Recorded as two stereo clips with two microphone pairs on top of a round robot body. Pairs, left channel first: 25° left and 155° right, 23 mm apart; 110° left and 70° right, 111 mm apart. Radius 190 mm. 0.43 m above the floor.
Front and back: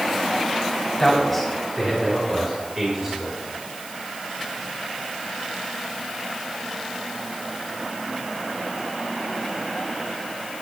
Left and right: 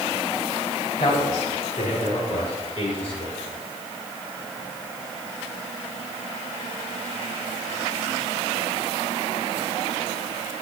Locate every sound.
1.0 s a man speaking: 100° left, 4 m; by 3.4 s 135° left, 5.5 m